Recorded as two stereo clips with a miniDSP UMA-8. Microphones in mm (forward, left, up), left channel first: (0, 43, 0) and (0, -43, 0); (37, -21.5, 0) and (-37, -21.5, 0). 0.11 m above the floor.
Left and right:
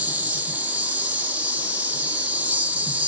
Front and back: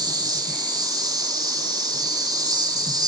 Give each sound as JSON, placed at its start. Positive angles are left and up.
{"t": 0.0, "sound": "an insect", "azimuth_deg": -160, "distance_m": 1.7}